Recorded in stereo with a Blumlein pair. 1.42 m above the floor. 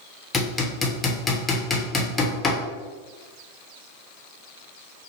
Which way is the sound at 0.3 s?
10° left.